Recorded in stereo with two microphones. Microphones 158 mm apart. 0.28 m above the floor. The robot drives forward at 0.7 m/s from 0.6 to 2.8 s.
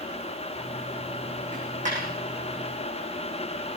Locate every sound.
1.5 s a dropped coin: 50° right (ahead or behind), 7 m